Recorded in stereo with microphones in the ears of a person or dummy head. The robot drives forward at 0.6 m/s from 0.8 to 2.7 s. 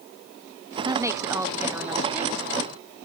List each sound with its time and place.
0.8 s a woman speaking: 25° right (ahead or behind); by 2.5 s 10° right (ahead or behind)